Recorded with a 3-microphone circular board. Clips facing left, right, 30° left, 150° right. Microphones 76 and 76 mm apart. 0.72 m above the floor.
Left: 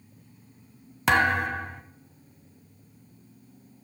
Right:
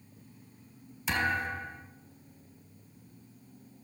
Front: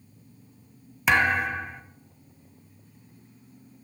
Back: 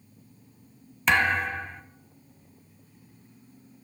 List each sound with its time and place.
1.1 s a thud: 115° left, 0.9 m